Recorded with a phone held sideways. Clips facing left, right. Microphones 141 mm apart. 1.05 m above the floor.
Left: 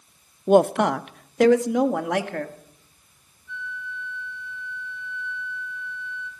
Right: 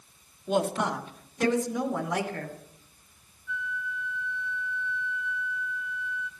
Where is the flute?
35° left (ahead or behind), 2.5 m.